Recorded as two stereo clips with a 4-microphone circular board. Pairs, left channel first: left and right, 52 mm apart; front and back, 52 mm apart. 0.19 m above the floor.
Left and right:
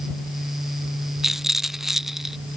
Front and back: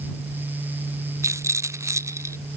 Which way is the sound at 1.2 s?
175° right.